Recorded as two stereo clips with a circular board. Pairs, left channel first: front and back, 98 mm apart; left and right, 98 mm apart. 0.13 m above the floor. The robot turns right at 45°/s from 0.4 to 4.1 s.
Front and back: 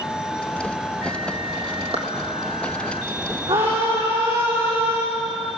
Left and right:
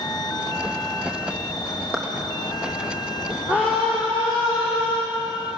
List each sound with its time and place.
1.9 s a clap: 165° right, 3.5 m; by 2.0 s 160° right, 3.5 m
3.5 s a scream: 165° right, 6.5 m; by 5.0 s 135° right, 6.5 m